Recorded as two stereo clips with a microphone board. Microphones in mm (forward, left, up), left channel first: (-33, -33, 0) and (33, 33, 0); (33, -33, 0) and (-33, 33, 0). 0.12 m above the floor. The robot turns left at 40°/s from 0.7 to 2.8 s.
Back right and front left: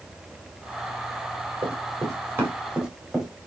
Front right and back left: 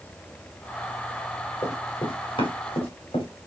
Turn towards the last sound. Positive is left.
turn(degrees=-40)